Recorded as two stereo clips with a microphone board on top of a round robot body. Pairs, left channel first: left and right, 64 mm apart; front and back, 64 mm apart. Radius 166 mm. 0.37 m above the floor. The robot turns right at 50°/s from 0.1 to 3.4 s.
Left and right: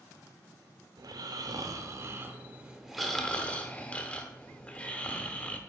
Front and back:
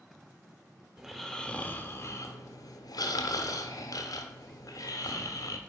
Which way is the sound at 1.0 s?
100° right.